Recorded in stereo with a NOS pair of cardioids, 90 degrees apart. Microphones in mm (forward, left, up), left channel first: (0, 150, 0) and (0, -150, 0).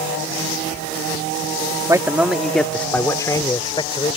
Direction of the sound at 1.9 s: 10° right.